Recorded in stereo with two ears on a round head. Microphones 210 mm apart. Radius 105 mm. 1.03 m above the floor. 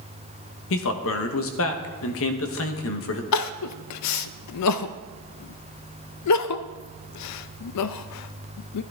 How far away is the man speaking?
About 1.3 m.